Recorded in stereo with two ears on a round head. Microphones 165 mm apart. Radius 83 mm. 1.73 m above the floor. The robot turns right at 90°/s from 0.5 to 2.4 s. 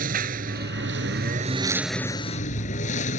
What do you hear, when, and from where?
0.0 s a lawn mower: 125° right; by 3.2 s 45° left